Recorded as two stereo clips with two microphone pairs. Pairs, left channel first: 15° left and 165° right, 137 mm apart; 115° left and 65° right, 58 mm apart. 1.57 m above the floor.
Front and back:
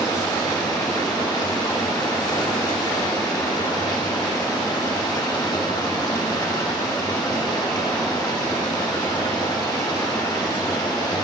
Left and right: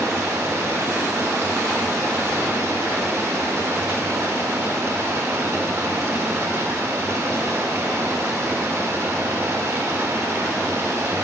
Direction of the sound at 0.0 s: 40° right.